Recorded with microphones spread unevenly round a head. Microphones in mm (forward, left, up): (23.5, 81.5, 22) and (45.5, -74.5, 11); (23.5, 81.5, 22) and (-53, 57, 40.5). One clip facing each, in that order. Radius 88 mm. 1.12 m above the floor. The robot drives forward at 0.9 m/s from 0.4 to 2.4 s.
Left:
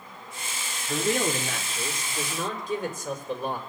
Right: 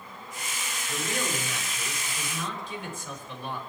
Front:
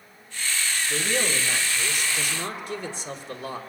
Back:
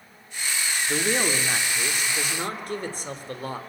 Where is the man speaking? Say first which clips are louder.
Left 7 dB, back 3 dB; 145° left, 3 m; by 3.6 s 155° left, 4 m.